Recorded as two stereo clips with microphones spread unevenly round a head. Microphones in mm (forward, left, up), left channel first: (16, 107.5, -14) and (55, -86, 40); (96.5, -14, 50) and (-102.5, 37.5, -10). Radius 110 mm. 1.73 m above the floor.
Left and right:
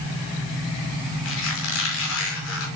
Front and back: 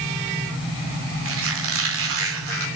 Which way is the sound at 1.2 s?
140° left.